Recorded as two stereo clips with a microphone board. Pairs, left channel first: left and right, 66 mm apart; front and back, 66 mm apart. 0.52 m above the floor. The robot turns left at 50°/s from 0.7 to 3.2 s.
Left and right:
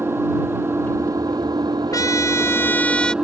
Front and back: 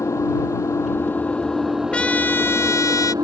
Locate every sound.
0.0 s an engine running: 40° right; by 3.2 s 165° right
1.9 s a trumpet: 70° left; by 3.1 s 10° left